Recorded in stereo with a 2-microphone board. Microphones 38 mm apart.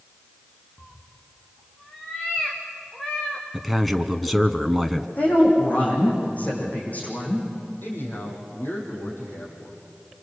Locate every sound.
0.8 s a cat meowing: 30° left (ahead or behind), 3.5 m; by 3.4 s 15° left (ahead or behind), 5 m
3.5 s a man speaking: centre (ahead or behind), 1.2 m
5.2 s a woman speaking: 45° left (ahead or behind), 8.5 m
7.8 s a man speaking: 70° left (ahead or behind), 7 m